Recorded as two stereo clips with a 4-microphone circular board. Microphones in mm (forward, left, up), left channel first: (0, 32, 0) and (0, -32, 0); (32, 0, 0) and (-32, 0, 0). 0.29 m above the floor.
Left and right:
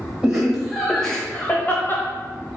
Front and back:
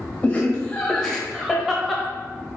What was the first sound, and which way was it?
Laughter, 40° right.